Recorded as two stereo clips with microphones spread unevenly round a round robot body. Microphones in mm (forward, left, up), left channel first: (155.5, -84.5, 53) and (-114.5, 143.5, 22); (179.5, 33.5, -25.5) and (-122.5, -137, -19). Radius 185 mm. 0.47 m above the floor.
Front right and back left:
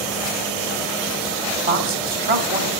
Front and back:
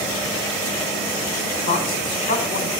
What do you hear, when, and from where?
1.7 s a woman speaking: 90° left, 1.7 m